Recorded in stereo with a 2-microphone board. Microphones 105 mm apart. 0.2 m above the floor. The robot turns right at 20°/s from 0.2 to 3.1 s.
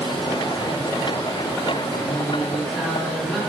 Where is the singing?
15° left (ahead or behind), 1.3 m; by 3.4 s 5° left (ahead or behind), 1.3 m.